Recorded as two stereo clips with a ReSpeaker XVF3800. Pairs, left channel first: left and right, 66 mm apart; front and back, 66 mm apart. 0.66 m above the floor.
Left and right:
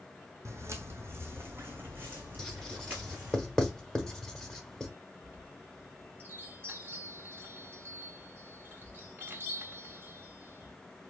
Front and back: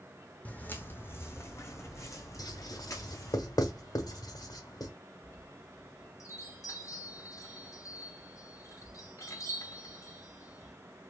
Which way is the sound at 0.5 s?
60° right.